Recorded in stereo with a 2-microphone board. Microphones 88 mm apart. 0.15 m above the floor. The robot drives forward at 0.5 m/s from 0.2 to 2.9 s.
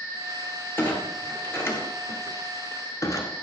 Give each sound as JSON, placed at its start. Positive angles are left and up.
{"t": 0.8, "sound": "a clunk", "side_deg": 20, "distance_m": 1.9}